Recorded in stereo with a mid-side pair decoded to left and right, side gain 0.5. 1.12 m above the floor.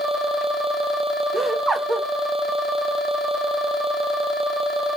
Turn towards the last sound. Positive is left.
turn(degrees=-30)